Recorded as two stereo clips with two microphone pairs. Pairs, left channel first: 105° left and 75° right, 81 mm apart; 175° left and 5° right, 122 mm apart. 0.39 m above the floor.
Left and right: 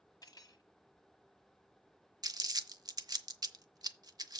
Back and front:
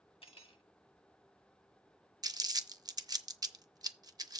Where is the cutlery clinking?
145° left, 1.8 m.